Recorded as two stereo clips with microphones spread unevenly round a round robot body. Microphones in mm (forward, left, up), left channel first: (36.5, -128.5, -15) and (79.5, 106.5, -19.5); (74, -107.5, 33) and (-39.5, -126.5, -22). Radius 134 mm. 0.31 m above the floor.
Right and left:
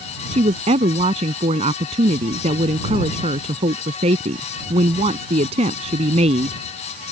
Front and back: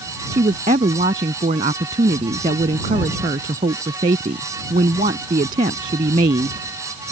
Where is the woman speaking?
145° left.